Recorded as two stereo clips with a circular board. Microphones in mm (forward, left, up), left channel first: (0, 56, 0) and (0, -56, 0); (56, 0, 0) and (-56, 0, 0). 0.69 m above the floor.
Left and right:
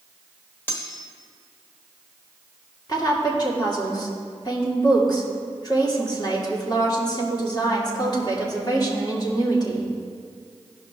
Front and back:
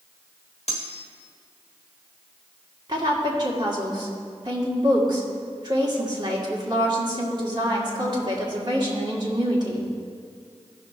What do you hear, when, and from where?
0.7 s cutlery clinking: 20° left, 1.1 m
2.9 s a woman speaking: 135° left, 1.8 m